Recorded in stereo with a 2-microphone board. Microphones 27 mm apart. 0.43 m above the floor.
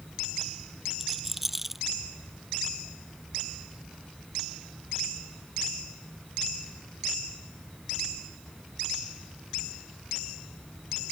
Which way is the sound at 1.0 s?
5° right (ahead or behind).